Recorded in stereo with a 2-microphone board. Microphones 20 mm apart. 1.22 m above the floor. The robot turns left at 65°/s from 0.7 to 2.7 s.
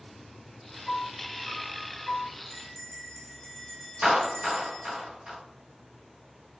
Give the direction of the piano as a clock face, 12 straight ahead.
12 o'clock.